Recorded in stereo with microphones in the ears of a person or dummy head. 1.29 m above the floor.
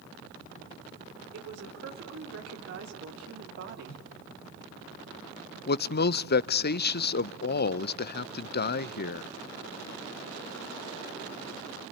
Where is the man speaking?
65° left (ahead or behind), 0.6 m.